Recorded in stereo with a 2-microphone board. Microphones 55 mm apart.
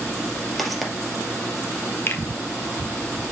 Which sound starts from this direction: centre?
Footsteps, at 0.6 s.